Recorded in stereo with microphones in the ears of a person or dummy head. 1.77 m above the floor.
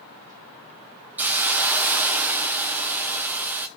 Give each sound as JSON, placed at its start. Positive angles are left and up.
{"t": 1.2, "sound": "a hiss", "side_deg": -10, "distance_m": 0.8}